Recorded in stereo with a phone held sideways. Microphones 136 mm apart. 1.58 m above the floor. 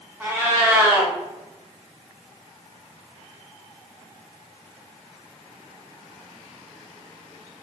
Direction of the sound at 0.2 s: 20° right (ahead or behind).